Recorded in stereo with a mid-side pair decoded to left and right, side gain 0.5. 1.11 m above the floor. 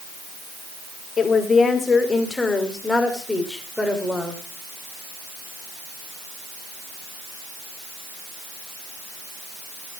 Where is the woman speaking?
40° left, 2.5 m; by 4.4 s 5° left, 3.5 m.